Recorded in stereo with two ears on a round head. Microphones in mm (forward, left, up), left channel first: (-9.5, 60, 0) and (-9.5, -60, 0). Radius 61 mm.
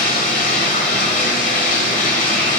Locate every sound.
0.0 s running water: 60° left (ahead or behind), 1.5 m